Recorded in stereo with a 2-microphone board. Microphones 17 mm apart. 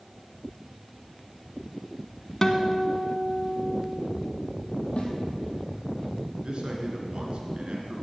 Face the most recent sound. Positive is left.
turn(degrees=-60)  # may be behind; listen again after turning